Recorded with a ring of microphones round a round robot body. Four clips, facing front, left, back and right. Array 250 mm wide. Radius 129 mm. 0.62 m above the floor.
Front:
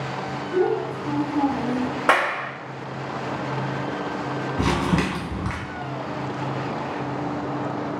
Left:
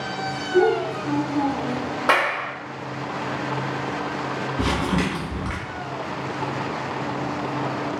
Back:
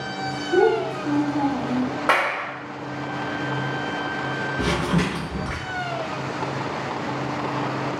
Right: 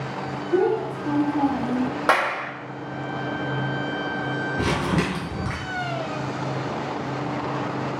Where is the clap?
35° right, 0.7 m.